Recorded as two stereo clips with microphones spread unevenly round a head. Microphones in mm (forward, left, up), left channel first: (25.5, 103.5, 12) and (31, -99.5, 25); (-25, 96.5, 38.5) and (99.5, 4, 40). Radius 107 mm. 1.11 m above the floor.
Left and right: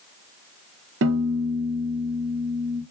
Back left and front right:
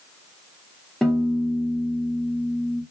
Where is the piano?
130° right, 0.6 m.